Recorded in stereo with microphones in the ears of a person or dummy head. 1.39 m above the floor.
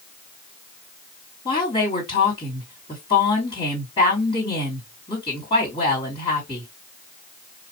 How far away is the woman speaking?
About 2.5 m.